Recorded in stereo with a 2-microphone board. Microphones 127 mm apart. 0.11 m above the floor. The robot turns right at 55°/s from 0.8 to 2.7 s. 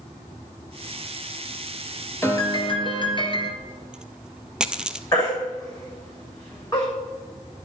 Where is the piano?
20° left (ahead or behind), 1.8 m; by 3.5 s 35° left (ahead or behind), 1.8 m.